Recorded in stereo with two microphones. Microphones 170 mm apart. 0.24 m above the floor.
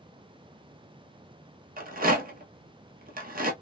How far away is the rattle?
About 0.8 m.